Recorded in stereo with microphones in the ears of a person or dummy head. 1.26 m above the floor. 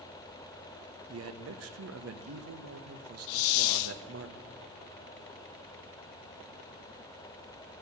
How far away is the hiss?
About 0.7 m.